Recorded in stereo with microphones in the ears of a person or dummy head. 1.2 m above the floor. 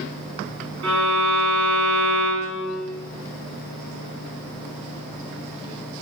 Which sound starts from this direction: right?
A violin, at 0.8 s.